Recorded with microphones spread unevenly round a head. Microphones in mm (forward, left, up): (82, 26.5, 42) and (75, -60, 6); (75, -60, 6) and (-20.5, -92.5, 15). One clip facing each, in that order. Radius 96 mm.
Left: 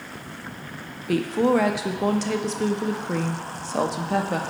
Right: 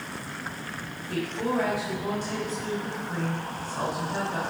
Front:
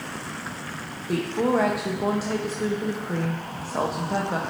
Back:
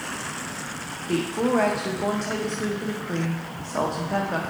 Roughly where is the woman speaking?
Left.